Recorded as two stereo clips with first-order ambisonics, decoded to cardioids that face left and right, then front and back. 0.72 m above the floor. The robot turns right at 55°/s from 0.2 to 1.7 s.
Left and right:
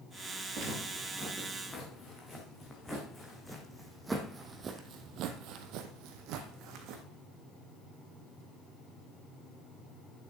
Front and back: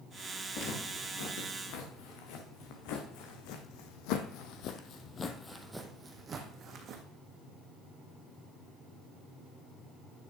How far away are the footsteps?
About 4.5 m.